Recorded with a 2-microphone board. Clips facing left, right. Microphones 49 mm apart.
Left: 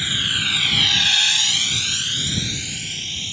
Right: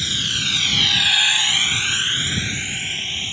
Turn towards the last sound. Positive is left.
turn(degrees=-30)  # may be behind; listen again after turning